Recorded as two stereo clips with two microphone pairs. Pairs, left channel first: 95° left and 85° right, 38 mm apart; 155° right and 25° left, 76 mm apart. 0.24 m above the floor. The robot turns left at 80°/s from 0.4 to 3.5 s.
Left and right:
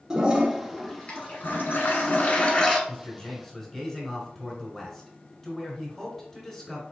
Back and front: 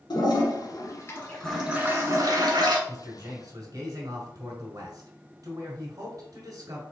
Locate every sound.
0.1 s a toilet flushing: 160° right, 1.3 m; by 2.8 s 10° left, 1.3 m
2.9 s a man speaking: 65° left, 1.6 m; by 6.8 s 15° left, 1.6 m